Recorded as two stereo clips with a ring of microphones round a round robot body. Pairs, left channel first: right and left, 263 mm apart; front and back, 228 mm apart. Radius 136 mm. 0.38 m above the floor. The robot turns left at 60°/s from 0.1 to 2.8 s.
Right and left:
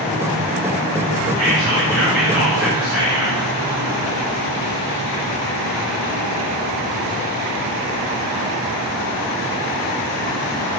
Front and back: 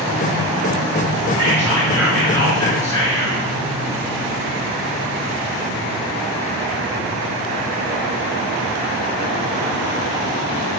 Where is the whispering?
120° left, 1.6 m; by 3.4 s 35° left, 1.6 m.